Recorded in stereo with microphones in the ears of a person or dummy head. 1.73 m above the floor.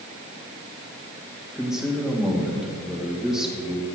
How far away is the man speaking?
About 2.5 m.